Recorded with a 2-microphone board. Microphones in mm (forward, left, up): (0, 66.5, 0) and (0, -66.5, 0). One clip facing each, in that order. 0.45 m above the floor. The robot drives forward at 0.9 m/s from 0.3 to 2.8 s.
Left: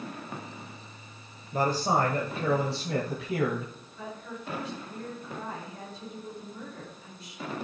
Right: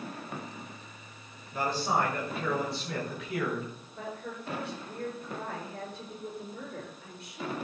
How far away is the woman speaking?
About 6 m.